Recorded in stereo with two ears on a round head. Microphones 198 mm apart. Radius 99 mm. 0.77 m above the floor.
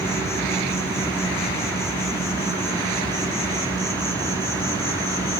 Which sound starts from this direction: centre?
An insect, at 0.0 s.